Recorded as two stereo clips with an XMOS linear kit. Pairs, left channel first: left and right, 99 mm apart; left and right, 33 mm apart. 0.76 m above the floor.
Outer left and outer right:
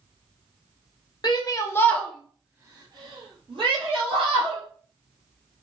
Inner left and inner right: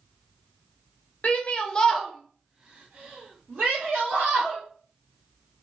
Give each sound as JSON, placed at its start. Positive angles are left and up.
{"t": 1.2, "sound": "a shout", "side_deg": 45, "distance_m": 0.7}